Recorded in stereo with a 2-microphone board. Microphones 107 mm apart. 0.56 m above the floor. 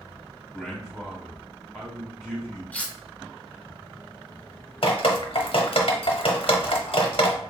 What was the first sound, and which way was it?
A man speaking, centre (ahead or behind).